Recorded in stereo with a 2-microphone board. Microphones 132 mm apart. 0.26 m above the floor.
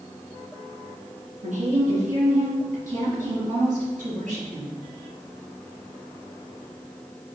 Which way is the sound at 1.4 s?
65° right (ahead or behind).